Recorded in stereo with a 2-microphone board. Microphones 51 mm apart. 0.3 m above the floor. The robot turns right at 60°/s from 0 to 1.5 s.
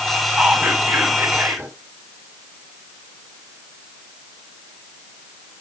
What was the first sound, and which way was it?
Whispering, 160° right.